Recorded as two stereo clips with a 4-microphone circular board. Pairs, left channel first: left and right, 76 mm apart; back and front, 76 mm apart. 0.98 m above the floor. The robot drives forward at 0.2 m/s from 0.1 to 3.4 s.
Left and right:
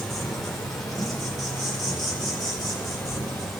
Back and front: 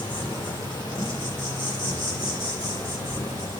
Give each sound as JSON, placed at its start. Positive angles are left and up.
{"t": 0.0, "sound": "an insect", "azimuth_deg": 175, "distance_m": 2.0}